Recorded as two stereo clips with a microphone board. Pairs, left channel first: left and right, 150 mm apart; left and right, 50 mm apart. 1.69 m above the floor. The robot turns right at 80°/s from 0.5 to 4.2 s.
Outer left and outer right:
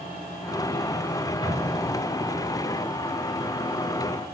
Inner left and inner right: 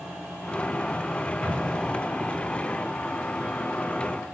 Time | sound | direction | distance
1.4 | an explosion | 30° left (ahead or behind) | 2 m